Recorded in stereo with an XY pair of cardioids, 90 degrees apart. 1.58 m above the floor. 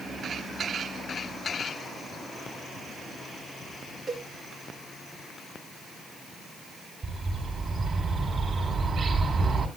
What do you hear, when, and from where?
4.1 s a cowbell: 45° right, 3 m
7.0 s a bird: 45° right, 4.5 m